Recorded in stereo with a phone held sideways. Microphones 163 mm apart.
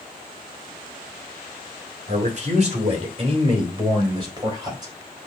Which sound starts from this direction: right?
A man speaking, at 2.1 s.